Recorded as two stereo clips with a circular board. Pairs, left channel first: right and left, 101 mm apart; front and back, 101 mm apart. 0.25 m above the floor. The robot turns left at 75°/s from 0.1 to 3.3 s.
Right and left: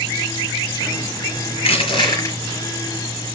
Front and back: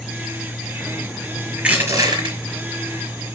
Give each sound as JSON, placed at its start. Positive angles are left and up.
{"t": 1.6, "sound": "crushing", "azimuth_deg": -95, "distance_m": 5.0}